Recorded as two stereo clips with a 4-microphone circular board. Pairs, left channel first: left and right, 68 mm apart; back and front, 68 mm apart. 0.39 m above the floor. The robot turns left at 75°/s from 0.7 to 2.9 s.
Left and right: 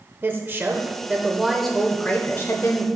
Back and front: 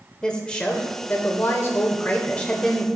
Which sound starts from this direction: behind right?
A woman speaking, at 0.2 s.